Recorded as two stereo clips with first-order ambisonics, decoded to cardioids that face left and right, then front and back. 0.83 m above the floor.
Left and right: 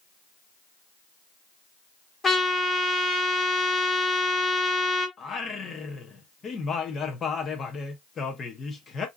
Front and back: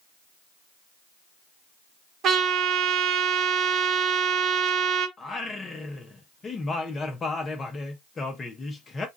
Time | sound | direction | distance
2.2 | a trumpet | 155° left | 1.2 m
5.2 | singing | 50° left | 0.7 m